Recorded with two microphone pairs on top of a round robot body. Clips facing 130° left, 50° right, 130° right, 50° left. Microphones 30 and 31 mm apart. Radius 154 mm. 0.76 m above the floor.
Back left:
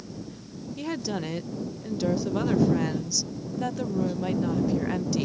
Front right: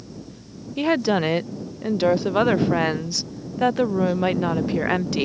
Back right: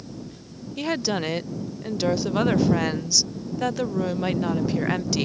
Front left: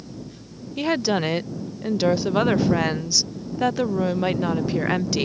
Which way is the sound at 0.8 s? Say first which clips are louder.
Front right 11 dB, front left 4 dB; 20° right.